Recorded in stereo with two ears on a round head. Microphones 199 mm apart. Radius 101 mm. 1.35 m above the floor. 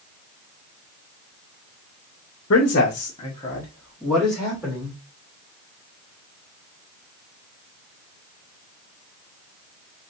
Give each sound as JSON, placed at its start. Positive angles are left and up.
{"t": 2.5, "sound": "a man speaking", "side_deg": 55, "distance_m": 0.8}